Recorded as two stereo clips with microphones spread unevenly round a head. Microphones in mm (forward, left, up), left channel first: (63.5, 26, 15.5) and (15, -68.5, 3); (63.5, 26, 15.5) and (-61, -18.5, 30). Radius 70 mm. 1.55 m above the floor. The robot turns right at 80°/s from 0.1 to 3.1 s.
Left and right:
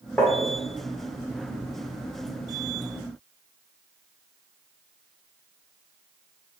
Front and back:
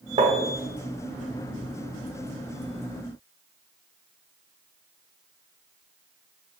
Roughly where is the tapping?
Behind left.